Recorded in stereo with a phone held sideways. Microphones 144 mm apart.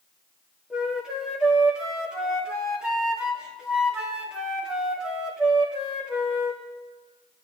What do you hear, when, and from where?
0.7 s a flute: 5° right (ahead or behind), 2 m